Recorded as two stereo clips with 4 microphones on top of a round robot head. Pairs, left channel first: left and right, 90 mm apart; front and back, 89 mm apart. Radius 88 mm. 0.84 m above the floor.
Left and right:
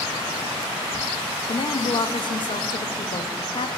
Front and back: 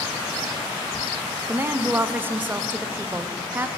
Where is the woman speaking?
115° left, 1.0 m.